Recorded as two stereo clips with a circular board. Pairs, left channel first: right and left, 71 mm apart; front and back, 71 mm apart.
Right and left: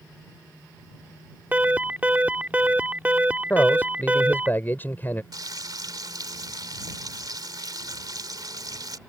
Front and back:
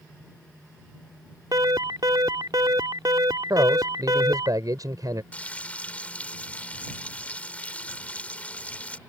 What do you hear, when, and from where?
1.5 s an alarm: 160° left
3.5 s a man speaking: 150° right
5.3 s frying: 70° left